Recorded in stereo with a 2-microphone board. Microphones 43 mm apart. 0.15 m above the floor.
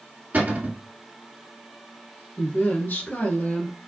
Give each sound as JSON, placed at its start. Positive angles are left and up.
{"t": 0.3, "sound": "a cupboard door", "side_deg": -40, "distance_m": 2.0}
{"t": 2.4, "sound": "a woman speaking", "side_deg": 50, "distance_m": 2.0}